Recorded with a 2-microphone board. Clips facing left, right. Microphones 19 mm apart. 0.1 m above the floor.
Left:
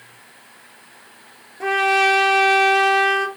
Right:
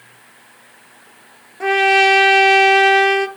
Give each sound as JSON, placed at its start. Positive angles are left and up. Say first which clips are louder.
{"t": 1.6, "sound": "a trumpet", "louder": "right 4 dB", "side_deg": -15, "distance_m": 1.0}